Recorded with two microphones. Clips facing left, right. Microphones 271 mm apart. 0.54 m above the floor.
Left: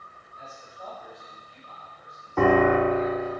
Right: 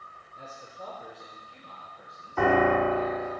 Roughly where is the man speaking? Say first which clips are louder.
Right 1 dB; right.